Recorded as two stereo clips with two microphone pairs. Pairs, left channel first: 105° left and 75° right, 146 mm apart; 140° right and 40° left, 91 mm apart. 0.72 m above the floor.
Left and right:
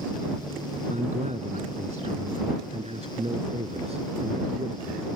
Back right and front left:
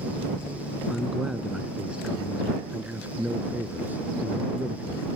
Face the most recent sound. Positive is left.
turn(degrees=-25)